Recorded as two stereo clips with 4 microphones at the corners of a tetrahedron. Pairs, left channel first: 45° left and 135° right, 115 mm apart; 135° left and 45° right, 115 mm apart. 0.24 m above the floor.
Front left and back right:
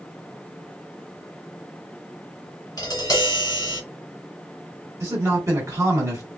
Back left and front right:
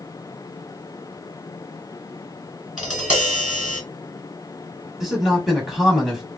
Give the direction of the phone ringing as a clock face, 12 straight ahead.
I don't hear a phone ringing.